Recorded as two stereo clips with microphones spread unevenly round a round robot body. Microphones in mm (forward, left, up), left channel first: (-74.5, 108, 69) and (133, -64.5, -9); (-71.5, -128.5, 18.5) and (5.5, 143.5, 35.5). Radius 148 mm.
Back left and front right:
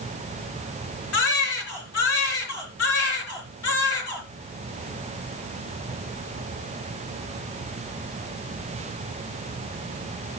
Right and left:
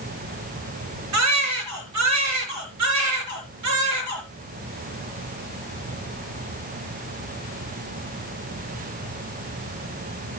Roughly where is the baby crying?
Left.